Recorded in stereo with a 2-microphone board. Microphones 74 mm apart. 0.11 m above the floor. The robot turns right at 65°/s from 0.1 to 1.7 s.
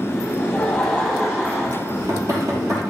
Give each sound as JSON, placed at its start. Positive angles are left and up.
{"t": 0.4, "sound": "laughter", "azimuth_deg": 145, "distance_m": 3.5}
{"t": 1.9, "sound": "knocking", "side_deg": -45, "distance_m": 2.5}